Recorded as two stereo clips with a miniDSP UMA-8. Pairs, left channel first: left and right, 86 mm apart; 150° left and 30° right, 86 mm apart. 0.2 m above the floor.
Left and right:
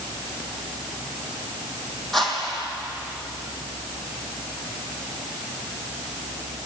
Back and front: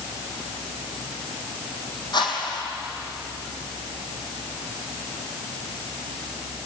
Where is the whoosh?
Straight behind, 4 m.